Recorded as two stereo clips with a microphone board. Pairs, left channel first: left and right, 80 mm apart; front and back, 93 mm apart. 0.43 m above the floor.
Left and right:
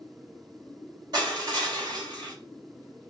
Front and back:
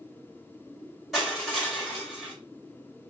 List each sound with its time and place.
1.1 s crushing: 90° right, 3 m